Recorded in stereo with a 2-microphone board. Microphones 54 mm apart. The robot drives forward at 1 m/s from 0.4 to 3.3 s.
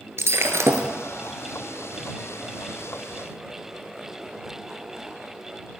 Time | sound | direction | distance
0.2 | breaking glass | 55° right (ahead or behind) | 1.5 m